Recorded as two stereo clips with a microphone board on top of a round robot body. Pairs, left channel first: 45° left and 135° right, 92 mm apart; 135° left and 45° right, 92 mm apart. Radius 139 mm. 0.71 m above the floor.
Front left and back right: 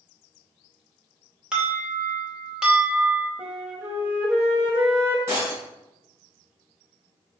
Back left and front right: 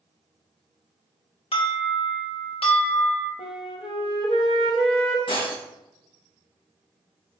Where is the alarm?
145° left, 2.5 m.